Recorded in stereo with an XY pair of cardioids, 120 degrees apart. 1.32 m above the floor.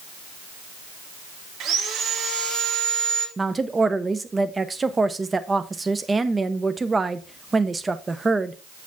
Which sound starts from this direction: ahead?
A woman speaking, at 3.4 s.